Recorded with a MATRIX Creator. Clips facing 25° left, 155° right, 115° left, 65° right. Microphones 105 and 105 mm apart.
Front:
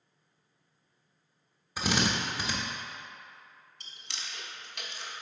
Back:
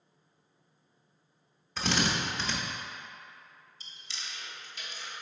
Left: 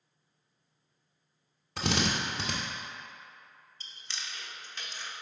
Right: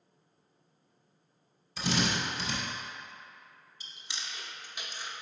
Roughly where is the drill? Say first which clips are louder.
Front 1 dB, even; left.